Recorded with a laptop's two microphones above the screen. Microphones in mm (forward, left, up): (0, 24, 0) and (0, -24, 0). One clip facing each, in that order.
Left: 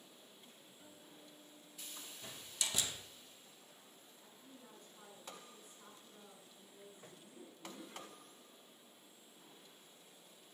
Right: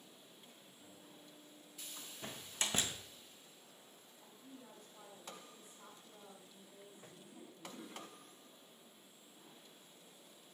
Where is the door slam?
40° right (ahead or behind), 0.8 m.